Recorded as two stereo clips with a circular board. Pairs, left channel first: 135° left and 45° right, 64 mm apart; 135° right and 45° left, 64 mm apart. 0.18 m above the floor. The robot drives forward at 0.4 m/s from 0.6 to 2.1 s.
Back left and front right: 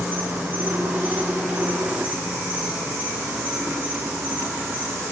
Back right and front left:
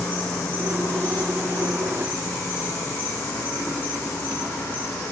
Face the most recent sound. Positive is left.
turn(degrees=-105)